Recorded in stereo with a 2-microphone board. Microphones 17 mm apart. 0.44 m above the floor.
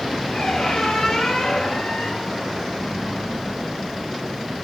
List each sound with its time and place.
0.3 s a squeak: 60° left (ahead or behind), 3.5 m